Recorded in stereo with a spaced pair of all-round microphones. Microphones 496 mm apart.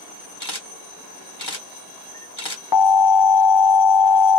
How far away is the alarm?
About 0.7 m.